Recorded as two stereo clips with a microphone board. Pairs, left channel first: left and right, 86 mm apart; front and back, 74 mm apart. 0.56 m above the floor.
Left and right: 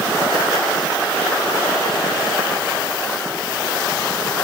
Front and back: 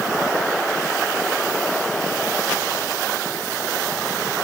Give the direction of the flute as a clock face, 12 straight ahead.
I don't hear a flute.